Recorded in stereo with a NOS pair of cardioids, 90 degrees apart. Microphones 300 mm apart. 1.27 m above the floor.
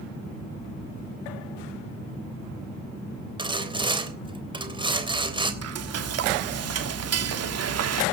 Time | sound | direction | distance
3.4 | sawing | 15° right | 3.5 m
5.6 | frying | 55° right | 2.5 m